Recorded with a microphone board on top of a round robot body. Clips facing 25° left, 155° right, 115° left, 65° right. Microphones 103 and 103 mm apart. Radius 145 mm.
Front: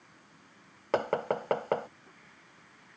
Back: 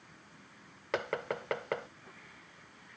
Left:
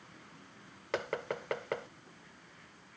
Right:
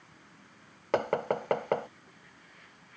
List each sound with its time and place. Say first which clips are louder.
0.9 s knocking: front 6 dB, right 8 dB; 25° right